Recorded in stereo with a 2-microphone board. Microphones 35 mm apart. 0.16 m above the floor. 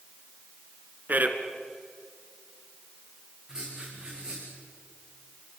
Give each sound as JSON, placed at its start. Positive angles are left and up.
{"t": 1.1, "sound": "a man speaking", "side_deg": -50, "distance_m": 2.5}
{"t": 3.5, "sound": "writing", "side_deg": -15, "distance_m": 8.5}